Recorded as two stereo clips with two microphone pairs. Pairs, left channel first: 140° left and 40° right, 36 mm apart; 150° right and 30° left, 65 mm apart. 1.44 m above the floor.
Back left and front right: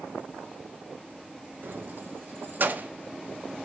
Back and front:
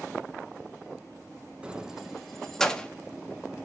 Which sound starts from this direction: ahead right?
Keys jangling, at 1.6 s.